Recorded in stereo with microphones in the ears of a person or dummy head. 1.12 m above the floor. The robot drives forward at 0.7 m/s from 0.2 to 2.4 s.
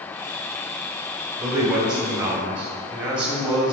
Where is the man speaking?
25° right (ahead or behind), 2.5 m; by 3.7 s 35° right (ahead or behind), 2.0 m.